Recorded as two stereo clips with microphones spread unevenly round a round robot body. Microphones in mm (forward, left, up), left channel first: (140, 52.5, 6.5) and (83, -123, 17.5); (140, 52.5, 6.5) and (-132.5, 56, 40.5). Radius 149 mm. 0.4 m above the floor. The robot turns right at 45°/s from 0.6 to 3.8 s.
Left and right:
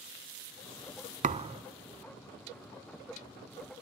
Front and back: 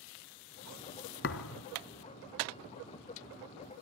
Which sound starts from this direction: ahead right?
A thud, at 1.2 s.